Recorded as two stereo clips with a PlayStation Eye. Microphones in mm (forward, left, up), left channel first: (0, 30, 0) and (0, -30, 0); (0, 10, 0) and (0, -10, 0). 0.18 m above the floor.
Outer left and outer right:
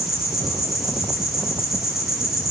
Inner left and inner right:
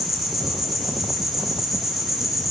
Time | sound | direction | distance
0.0 | an insect | 5° right (ahead or behind) | 3 m